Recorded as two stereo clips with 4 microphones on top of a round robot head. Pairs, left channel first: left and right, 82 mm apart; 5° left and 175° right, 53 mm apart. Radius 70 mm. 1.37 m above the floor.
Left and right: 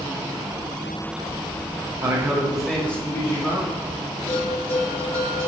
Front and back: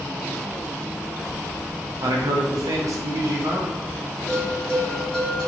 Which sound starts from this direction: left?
A bell, at 4.3 s.